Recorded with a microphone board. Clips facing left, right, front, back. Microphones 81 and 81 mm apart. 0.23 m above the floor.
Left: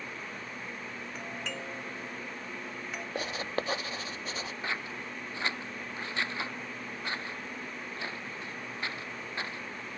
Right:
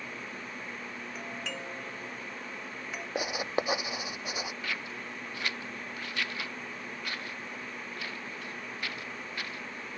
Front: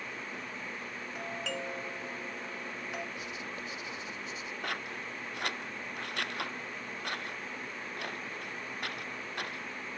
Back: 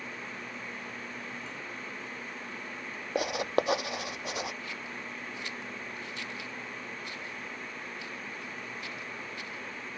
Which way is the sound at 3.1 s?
165° right.